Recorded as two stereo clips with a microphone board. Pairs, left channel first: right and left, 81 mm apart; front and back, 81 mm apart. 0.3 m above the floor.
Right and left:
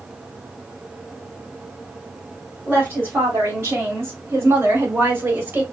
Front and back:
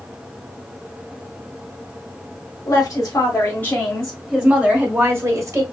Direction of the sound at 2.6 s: 30° left.